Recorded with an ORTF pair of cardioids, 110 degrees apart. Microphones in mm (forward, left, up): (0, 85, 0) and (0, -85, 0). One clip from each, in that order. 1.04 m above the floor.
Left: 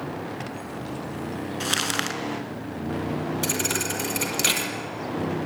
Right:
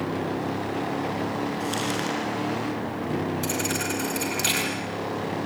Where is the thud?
30° left, 5 m.